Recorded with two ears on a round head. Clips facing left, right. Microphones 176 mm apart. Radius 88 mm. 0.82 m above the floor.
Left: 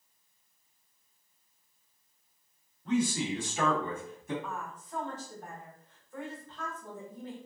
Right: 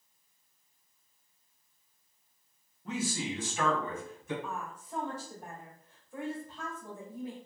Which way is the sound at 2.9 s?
10° right (ahead or behind).